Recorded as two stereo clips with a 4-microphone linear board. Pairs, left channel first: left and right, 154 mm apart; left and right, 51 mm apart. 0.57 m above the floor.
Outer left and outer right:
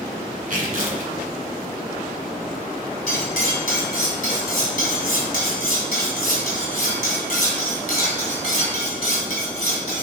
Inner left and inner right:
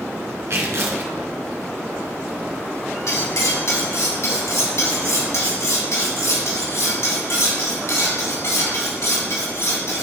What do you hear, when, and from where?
0.5 s tearing paper: 60° right (ahead or behind), 1.8 m
3.1 s cutlery clinking: 70° left (ahead or behind), 2 m